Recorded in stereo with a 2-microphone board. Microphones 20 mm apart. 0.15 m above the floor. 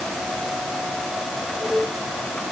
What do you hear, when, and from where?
Only background noise.